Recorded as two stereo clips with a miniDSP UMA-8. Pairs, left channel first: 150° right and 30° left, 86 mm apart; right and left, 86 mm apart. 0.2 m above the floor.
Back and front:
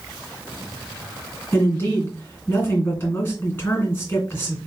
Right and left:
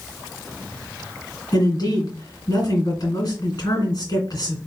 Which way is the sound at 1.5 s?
90° right.